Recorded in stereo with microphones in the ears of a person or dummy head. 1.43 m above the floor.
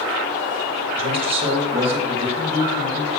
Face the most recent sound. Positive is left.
turn(degrees=-30)  # may be behind; listen again after turning